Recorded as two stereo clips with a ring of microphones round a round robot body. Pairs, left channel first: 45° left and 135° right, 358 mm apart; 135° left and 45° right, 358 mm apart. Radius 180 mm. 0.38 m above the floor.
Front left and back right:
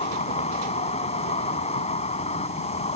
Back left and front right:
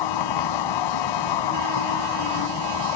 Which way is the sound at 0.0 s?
120° left.